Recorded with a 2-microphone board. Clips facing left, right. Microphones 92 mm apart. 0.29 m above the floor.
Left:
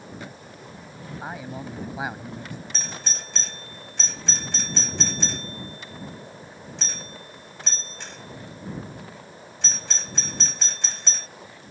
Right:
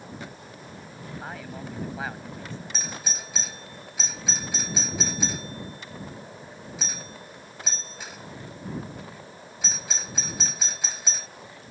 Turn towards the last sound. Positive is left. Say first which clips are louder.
# even
turn(degrees=-5)  # may be behind; listen again after turning